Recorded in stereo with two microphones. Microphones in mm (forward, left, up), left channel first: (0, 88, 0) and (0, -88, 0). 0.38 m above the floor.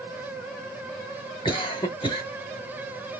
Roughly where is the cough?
Left.